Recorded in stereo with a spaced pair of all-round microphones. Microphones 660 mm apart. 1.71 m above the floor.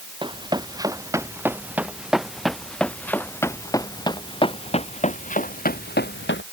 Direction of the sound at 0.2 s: 5° right (ahead or behind).